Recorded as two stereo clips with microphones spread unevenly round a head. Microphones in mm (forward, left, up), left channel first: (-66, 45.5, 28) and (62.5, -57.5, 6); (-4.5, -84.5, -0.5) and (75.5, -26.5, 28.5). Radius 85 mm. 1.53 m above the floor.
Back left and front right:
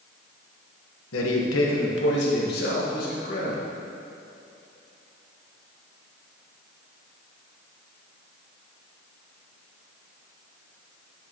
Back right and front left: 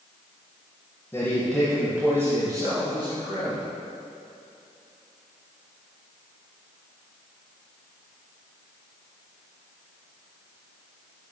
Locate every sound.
1.1 s a man speaking: 140° left, 1.3 m; by 3.6 s 95° left, 2.5 m